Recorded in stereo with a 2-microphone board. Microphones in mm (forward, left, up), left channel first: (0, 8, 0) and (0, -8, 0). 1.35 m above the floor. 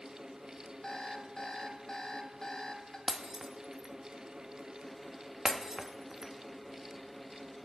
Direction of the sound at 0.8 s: 40° left (ahead or behind).